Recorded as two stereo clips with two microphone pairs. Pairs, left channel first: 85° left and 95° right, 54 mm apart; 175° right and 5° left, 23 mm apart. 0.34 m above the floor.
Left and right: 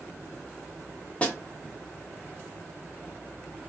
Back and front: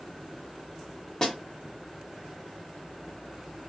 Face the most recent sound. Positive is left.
turn(degrees=140)